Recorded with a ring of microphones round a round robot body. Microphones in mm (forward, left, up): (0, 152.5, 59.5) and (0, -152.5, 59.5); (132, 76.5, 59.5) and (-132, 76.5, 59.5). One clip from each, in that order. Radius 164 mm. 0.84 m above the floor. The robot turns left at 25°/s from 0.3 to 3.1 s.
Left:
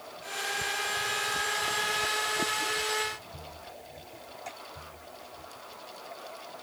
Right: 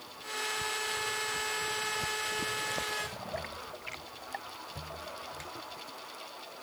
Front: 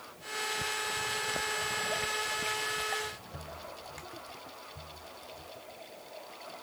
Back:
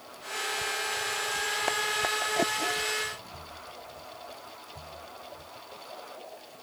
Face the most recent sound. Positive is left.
No sound to turn to.